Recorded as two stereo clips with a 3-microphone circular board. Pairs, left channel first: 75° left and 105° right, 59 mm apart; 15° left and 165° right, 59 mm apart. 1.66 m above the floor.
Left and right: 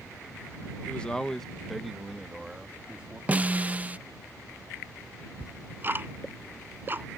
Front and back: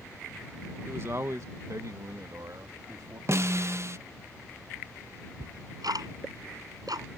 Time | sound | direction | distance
0.9 | a man speaking | 145° left | ?
3.3 | a snare drum | 160° right | ?
5.4 | ticking | 160° right | ?